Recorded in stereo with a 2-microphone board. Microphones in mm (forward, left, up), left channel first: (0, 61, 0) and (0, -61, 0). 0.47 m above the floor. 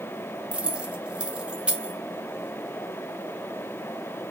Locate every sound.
0.5 s keys jangling: 10° right (ahead or behind), 0.6 m